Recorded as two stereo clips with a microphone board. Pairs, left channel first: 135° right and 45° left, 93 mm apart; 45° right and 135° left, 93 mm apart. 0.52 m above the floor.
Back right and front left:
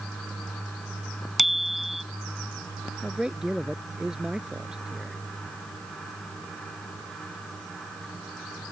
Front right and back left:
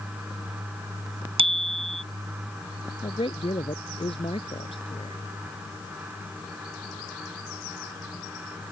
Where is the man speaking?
40° right.